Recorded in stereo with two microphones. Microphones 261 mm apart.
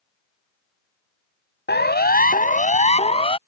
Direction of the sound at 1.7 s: 40° left (ahead or behind).